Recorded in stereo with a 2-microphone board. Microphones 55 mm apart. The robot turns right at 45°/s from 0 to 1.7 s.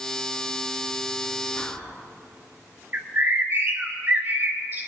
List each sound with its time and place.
1.6 s whispering: 40° left (ahead or behind), 2 m
2.9 s a bird: 40° right (ahead or behind), 2.0 m